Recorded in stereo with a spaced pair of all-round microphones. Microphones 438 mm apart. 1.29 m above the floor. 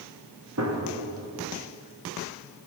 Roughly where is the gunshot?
Right.